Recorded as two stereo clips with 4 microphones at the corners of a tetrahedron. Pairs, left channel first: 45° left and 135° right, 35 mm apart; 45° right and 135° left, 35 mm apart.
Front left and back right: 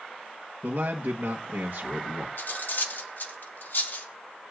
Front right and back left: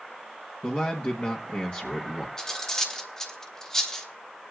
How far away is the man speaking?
About 1.3 m.